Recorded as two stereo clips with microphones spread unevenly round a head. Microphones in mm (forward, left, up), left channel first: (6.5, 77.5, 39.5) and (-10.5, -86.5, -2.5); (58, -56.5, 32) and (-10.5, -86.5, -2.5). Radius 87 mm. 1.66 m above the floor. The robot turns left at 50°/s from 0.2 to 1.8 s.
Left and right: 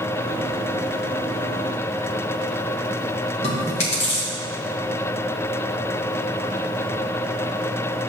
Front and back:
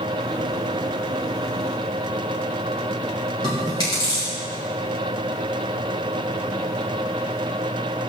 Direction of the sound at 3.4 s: 40° left.